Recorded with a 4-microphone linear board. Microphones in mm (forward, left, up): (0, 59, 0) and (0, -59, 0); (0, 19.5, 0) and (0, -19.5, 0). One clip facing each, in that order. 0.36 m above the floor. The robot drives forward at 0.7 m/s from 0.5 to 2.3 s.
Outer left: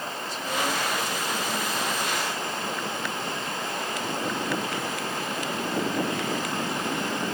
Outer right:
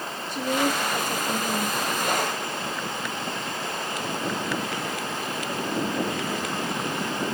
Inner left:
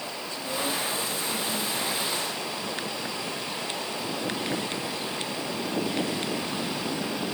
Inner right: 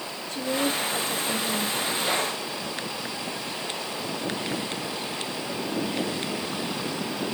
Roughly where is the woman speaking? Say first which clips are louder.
Outer right 5 dB, inner right 5 dB; right.